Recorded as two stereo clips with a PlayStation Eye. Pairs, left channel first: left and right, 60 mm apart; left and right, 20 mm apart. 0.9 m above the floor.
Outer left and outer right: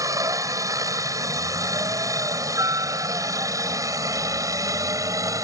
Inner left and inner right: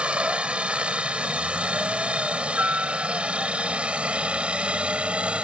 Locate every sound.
0.0 s a helicopter: 75° right (ahead or behind); by 5.5 s 70° right (ahead or behind)